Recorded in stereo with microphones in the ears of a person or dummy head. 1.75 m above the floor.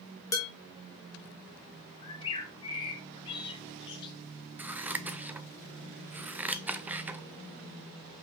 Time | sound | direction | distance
0.3 | dishes clattering | 20° left (ahead or behind) | 1.5 m
2.0 | a bird | 25° left (ahead or behind) | 1.3 m
4.6 | scissors | 10° right (ahead or behind) | 0.5 m